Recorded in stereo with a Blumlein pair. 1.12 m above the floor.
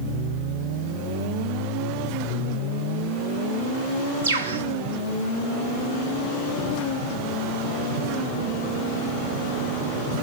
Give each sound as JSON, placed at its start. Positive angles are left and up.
{"t": 4.2, "sound": "a bird", "azimuth_deg": -60, "distance_m": 1.2}